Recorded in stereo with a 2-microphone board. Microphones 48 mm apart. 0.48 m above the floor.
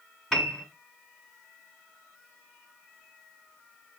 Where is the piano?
5° left (ahead or behind), 1.6 m.